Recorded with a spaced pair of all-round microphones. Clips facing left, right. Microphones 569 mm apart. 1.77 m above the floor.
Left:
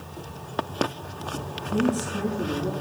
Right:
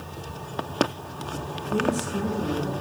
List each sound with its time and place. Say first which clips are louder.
1.7 s a woman speaking: left 1 dB; 45° right (ahead or behind), 1.4 m; by 2.7 s 50° right (ahead or behind), 2.5 m